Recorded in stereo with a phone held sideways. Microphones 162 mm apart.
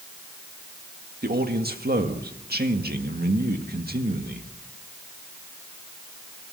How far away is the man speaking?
About 1.8 m.